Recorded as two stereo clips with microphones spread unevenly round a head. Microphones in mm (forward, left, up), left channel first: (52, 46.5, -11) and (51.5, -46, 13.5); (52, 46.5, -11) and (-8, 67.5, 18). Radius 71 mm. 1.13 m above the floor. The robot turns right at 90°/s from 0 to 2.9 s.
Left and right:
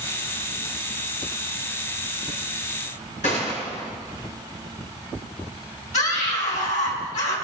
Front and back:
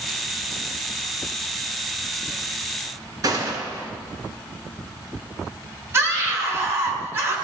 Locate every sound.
3.2 s a gunshot: 135° left, 5.5 m
5.9 s a scream: 105° left, 7.5 m